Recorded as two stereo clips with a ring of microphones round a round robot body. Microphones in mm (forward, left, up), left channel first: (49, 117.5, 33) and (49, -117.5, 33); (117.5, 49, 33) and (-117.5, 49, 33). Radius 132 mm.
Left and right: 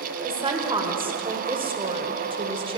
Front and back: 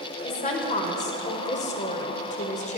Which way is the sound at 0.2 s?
35° right.